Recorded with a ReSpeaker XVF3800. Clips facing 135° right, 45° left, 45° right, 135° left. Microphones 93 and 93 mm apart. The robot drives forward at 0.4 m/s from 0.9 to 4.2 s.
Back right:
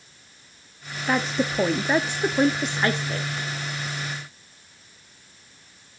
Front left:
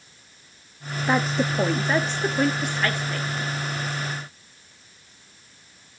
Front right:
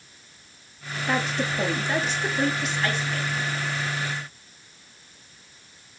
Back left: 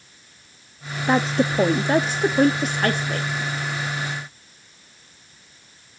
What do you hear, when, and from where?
1.1 s a woman speaking: 115° left, 0.6 m; by 3.3 s 165° left, 1.1 m